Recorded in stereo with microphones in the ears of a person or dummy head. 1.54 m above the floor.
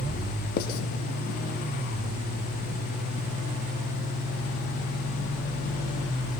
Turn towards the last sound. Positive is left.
turn(degrees=55)  # may be behind; listen again after turning